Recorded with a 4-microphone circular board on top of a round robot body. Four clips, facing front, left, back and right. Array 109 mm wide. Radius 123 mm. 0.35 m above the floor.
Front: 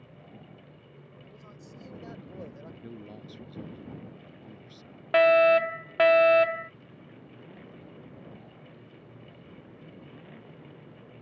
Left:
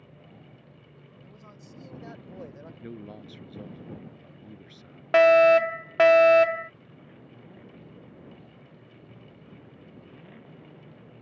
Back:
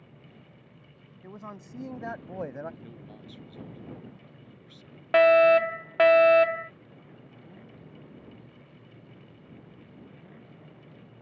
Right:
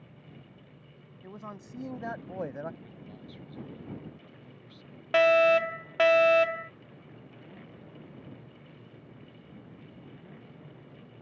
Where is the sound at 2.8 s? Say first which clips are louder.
Left 6 dB, front 3 dB; 75° left.